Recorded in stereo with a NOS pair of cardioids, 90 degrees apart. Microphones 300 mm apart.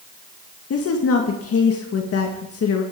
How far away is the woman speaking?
About 2.0 m.